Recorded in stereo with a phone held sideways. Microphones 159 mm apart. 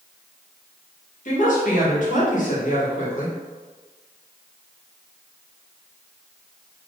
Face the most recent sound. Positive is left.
turn(degrees=55)  # may be behind; listen again after turning